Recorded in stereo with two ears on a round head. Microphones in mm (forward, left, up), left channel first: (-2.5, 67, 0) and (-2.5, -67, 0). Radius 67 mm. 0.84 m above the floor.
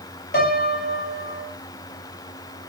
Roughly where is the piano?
Left.